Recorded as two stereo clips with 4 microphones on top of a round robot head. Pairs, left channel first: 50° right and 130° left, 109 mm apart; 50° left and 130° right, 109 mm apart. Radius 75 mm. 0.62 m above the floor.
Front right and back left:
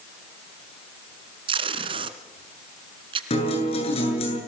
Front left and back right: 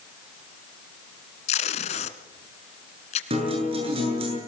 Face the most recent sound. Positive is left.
turn(degrees=-90)